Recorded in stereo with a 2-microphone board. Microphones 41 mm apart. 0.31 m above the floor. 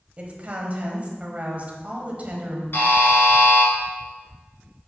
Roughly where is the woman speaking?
Right.